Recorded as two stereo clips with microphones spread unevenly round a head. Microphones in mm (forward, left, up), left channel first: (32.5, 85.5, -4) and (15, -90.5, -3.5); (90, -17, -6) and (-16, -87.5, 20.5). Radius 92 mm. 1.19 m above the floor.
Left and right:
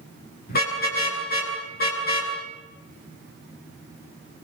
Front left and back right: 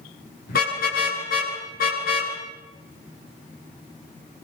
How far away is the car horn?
About 9.5 m.